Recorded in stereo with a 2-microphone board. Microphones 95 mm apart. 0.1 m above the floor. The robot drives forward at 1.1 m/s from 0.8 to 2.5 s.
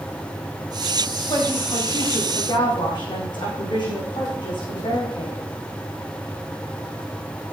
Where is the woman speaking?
45° left (ahead or behind), 6.5 m; by 5.4 s 55° left (ahead or behind), 5.5 m.